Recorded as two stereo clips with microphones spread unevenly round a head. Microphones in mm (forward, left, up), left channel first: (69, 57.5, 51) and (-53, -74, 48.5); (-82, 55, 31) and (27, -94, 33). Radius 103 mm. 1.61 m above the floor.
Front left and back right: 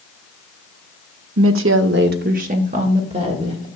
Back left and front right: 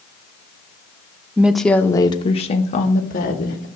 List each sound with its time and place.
1.4 s a woman speaking: 130° right, 0.6 m; by 3.7 s 165° left, 1.4 m